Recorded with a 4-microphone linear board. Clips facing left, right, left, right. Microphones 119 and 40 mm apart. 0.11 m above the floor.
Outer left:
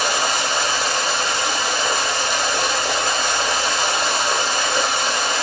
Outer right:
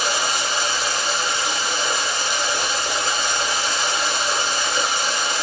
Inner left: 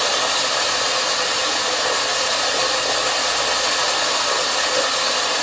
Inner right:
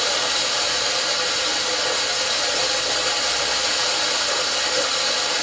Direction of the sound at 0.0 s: 60° left (ahead or behind).